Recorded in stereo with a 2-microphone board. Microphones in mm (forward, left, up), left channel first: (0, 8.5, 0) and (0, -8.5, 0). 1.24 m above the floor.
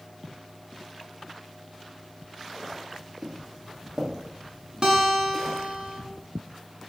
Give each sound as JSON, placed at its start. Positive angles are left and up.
{"t": 3.2, "sound": "footsteps", "side_deg": -30, "distance_m": 1.7}
{"t": 4.8, "sound": "a guitar", "side_deg": -55, "distance_m": 1.4}